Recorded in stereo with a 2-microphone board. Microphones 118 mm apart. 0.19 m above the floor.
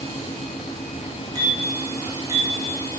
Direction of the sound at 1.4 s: 35° right (ahead or behind).